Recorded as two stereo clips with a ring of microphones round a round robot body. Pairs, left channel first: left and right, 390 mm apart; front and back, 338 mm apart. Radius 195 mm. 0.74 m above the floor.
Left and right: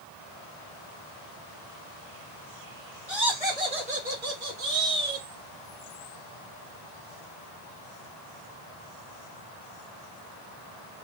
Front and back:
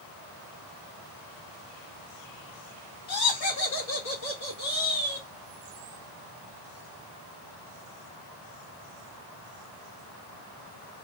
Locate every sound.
3.1 s laughter: 5° right, 1.5 m; by 5.3 s 70° right, 1.3 m